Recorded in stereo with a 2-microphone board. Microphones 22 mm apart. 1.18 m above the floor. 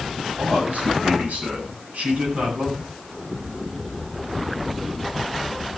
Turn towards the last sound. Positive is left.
turn(degrees=-90)